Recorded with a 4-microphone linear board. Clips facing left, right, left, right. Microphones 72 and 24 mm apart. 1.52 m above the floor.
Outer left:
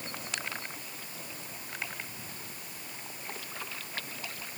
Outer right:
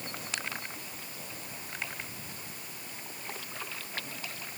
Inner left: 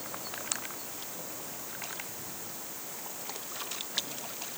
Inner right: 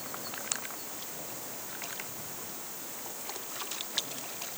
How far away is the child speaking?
No child speaking in this recording.